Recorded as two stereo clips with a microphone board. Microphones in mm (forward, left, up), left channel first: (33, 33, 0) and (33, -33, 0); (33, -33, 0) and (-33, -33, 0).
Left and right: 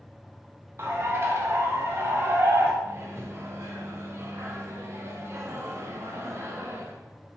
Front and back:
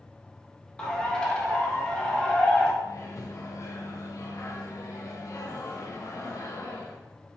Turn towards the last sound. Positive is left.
turn(degrees=-40)